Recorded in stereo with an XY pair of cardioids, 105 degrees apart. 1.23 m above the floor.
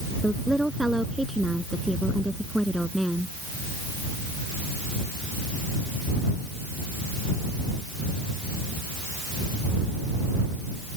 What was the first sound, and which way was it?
A woman speaking, 5° right.